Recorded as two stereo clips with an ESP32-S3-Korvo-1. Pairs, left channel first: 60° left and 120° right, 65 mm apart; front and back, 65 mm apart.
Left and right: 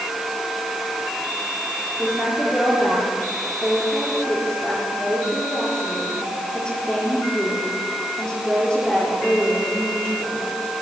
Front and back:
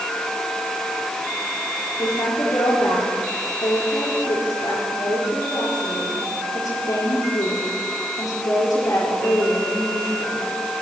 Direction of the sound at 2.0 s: 15° right.